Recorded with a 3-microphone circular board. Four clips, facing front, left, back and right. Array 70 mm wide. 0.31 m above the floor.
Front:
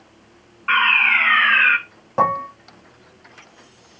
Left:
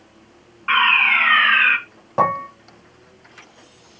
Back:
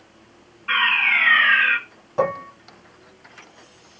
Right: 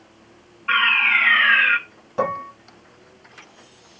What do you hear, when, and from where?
0.7 s a fire alarm: 55° left, 5.5 m
2.2 s dishes clattering: 55° left, 1.4 m